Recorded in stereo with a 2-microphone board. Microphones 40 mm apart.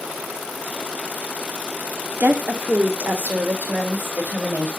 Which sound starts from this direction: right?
A woman speaking, at 2.2 s.